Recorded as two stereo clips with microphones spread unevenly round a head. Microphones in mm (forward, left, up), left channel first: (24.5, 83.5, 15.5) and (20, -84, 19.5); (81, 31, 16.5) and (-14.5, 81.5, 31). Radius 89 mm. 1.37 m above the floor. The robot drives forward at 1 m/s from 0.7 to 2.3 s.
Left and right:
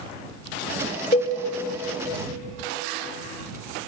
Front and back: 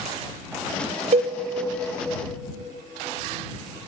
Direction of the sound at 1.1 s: 145° left.